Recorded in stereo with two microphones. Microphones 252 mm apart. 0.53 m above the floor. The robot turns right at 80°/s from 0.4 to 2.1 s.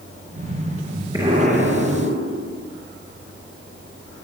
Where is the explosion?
165° right, 8.5 m; by 2.7 s 90° right, 8.5 m.